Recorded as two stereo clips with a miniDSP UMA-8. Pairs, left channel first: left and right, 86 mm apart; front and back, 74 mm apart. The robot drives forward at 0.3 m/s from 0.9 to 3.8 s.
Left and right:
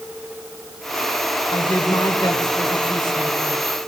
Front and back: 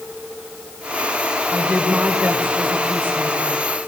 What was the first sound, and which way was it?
A woman speaking, 110° left.